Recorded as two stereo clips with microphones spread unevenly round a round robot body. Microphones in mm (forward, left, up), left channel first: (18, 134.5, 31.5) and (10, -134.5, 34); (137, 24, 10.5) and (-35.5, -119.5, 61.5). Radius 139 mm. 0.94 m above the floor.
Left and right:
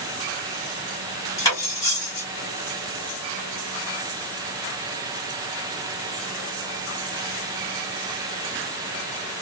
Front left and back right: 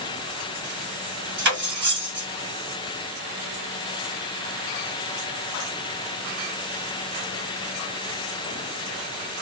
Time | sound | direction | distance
1.4 | cutlery clinking | 165° left | 1.2 m